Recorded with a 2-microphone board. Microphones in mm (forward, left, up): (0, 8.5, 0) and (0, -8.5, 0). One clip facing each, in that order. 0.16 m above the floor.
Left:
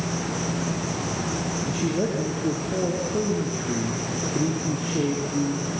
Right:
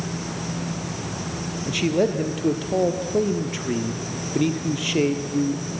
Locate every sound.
0.0 s an insect: 45° left (ahead or behind), 5 m
1.7 s a man speaking: 50° right (ahead or behind), 3.5 m